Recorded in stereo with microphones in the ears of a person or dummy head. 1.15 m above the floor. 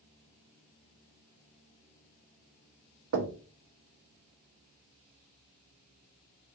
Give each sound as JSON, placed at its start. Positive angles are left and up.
{"t": 3.1, "sound": "knocking", "side_deg": -65, "distance_m": 0.8}